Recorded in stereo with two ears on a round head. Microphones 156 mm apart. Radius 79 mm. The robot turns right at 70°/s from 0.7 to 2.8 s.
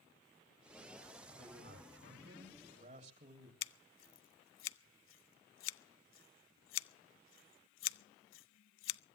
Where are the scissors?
80° left, 0.6 m.